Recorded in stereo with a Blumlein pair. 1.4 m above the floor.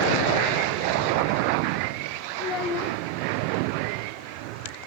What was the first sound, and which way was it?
A child speaking, 35° left.